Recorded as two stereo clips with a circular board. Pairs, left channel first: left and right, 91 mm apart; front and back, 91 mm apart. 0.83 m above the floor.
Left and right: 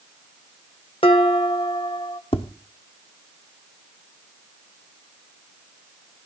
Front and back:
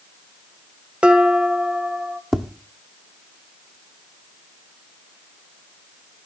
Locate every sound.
1.0 s dishes clattering: 100° left, 1.6 m
2.3 s tapping: 90° left, 1.0 m